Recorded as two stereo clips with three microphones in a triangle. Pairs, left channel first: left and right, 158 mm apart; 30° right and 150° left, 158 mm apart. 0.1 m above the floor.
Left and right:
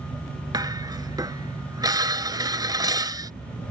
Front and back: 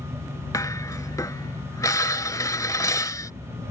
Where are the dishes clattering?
65° right.